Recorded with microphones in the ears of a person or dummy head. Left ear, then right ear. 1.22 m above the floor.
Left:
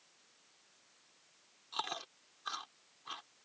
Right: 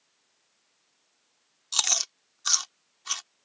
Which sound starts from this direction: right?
Chewing, at 1.7 s.